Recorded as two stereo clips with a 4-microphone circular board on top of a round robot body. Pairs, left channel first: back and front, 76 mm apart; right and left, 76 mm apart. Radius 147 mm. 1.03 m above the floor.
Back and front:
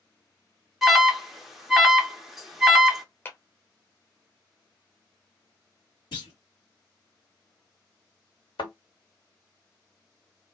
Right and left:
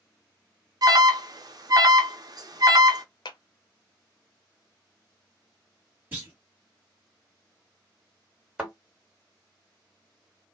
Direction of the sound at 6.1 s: 155° left.